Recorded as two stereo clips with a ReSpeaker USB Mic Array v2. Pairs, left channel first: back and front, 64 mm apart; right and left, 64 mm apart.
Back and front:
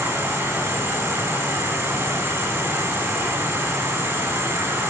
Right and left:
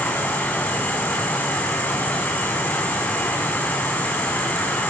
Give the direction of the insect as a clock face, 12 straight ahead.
1 o'clock.